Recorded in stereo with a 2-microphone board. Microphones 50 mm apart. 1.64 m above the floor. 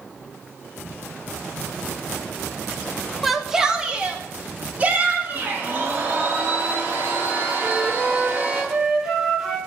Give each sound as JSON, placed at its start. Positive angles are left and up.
{"t": 3.2, "sound": "a shout", "side_deg": 0, "distance_m": 1.3}
{"t": 5.3, "sound": "a blender", "side_deg": -40, "distance_m": 7.5}
{"t": 7.6, "sound": "a flute", "side_deg": -10, "distance_m": 2.5}